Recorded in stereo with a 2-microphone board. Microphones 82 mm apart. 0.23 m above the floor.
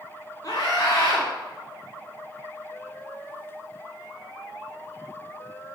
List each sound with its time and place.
0.4 s a scream: 50° left (ahead or behind), 2.5 m